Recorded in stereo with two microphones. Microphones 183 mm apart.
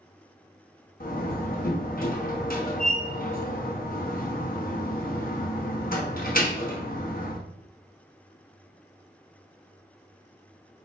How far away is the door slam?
About 1.0 m.